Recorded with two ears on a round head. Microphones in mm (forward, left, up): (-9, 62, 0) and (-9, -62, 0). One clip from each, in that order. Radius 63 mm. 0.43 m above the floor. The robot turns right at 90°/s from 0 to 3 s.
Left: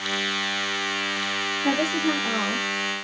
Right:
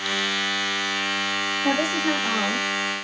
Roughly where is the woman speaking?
Behind right.